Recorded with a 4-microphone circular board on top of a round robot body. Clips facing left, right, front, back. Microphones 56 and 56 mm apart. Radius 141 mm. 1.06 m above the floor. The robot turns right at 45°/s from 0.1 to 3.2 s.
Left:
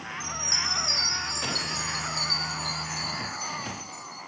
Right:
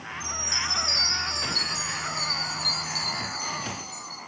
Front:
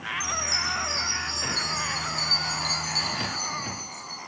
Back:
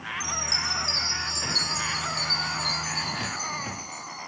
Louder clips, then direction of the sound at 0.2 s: Right 2 dB, front 2 dB; 120° left.